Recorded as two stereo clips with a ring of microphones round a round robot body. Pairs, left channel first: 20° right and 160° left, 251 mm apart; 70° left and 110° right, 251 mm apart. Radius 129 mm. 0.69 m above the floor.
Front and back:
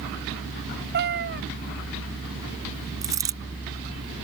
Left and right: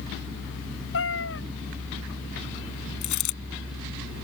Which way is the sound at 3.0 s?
80° left.